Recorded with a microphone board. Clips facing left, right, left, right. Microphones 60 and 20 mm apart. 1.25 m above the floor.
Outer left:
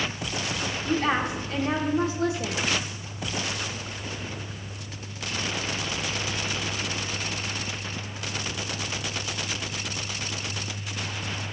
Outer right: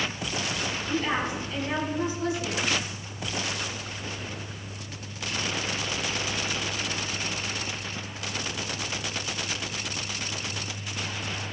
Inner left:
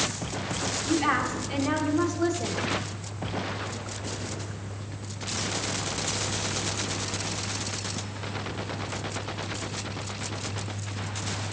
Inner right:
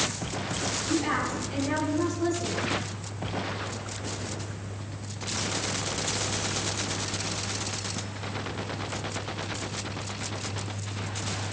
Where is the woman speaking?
70° left (ahead or behind), 2 m.